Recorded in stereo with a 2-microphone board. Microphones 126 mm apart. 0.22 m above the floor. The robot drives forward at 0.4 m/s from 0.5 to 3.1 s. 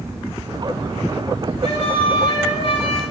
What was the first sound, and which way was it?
A flute, 65° left (ahead or behind).